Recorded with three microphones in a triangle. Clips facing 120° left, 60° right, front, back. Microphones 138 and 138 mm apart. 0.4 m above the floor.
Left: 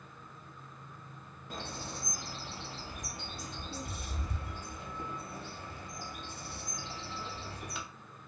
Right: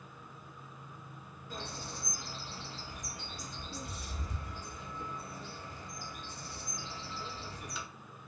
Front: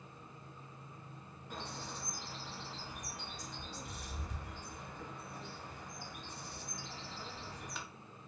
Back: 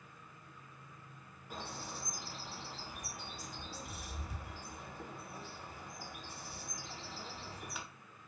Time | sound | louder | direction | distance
1.5 | a bird | left 2 dB, even | 95° left | 0.6 m